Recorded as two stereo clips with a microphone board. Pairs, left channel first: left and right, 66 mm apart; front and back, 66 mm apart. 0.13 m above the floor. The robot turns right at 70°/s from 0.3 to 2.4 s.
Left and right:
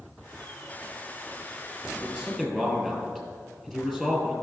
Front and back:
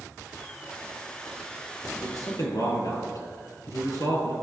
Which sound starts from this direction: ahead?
A man speaking, at 2.0 s.